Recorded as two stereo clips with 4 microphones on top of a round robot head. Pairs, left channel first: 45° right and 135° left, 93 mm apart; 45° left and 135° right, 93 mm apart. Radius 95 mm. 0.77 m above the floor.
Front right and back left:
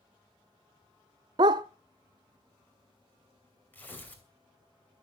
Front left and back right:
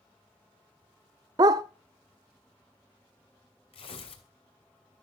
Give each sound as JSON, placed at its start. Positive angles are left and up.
{"t": 1.4, "sound": "a dog barking", "azimuth_deg": 175, "distance_m": 0.5}
{"t": 3.7, "sound": "tearing paper", "azimuth_deg": 25, "distance_m": 3.0}